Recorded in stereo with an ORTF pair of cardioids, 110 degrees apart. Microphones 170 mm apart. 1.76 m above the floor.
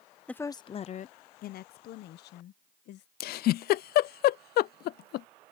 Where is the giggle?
65° left.